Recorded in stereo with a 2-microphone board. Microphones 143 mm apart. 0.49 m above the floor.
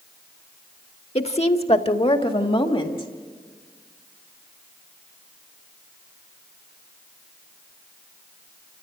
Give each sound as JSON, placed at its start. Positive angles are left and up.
{"t": 1.1, "sound": "a woman speaking", "side_deg": 45, "distance_m": 1.1}